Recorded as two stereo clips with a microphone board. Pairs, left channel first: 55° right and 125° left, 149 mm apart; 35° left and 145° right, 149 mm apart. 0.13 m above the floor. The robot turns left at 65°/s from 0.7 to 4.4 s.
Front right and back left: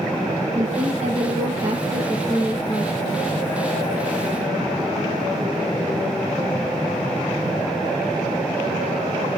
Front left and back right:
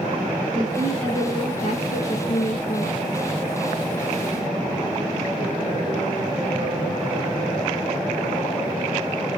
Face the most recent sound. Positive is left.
turn(degrees=-120)